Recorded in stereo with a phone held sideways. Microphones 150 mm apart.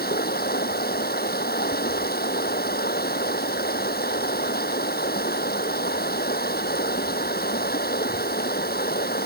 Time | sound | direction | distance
0.0 | running water | 80° left | ?